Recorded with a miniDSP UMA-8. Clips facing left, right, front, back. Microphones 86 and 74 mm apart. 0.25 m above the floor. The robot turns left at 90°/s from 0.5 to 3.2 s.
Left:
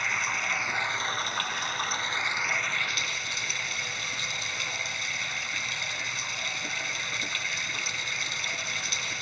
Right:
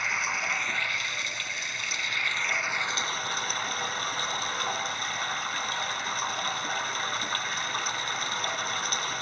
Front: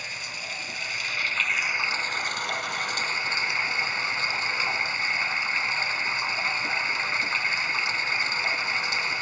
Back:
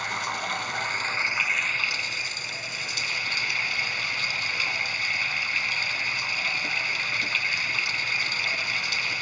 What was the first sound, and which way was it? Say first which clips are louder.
Running water: even, back 8 dB; 175° right.